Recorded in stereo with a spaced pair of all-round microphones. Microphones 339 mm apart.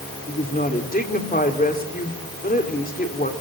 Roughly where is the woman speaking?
Left.